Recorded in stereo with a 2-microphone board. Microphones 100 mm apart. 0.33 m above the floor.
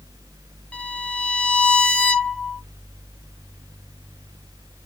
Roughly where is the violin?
Centre.